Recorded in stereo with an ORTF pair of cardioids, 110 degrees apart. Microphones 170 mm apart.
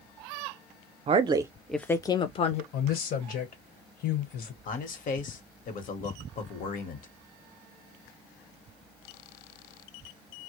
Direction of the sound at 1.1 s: 40° right.